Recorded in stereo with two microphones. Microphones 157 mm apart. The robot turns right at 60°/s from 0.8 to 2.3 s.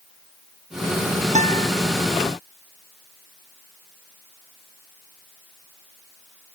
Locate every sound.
1.4 s a guitar: 45° right (ahead or behind); by 1.7 s 65° right (ahead or behind)